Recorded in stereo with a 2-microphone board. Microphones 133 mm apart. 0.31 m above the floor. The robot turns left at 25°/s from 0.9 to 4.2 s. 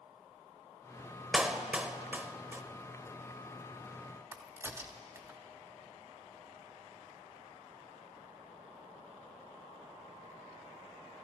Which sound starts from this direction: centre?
A clap, at 1.3 s.